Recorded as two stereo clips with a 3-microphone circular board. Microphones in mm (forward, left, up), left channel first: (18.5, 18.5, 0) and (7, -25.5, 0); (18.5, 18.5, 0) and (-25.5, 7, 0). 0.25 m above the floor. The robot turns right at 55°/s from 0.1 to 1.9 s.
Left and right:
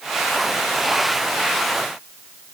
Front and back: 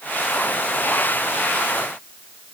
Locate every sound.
Only background noise.